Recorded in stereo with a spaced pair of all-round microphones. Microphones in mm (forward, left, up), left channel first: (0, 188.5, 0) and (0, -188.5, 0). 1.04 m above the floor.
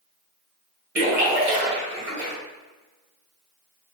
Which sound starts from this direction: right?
A splash, at 0.9 s.